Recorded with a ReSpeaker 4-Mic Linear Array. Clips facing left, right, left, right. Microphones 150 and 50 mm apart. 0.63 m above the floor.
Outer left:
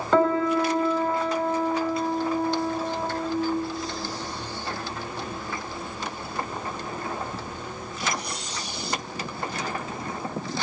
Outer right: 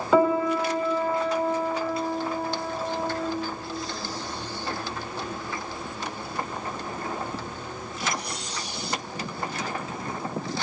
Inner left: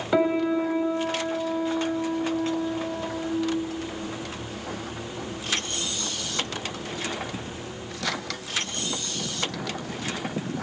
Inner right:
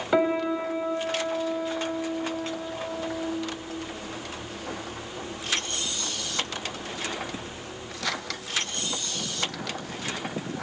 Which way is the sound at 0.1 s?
5° right (ahead or behind).